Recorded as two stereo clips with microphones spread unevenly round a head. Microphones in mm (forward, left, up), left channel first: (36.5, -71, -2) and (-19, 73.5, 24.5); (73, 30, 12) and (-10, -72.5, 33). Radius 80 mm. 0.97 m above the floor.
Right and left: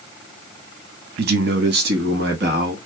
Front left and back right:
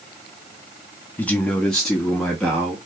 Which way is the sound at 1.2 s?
120° left.